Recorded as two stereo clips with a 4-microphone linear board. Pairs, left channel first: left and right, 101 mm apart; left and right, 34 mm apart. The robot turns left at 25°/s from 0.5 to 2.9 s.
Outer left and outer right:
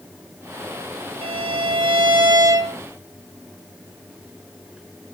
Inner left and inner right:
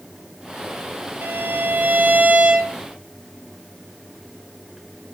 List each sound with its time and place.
1.2 s a violin: 110° right, 0.9 m; by 2.8 s 150° right, 0.9 m